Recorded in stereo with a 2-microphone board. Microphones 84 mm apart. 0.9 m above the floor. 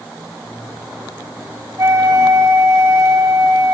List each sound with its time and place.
1.8 s a flute: 40° right (ahead or behind), 1.3 m